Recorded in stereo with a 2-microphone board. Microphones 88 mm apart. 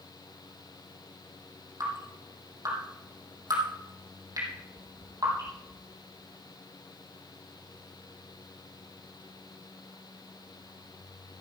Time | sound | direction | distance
1.8 | dripping | 40° right (ahead or behind) | 4 m
4.5 | tapping | 40° right (ahead or behind) | 4 m